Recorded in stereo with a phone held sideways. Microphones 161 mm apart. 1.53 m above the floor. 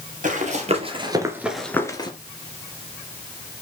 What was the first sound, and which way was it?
Running footsteps, 55° right (ahead or behind).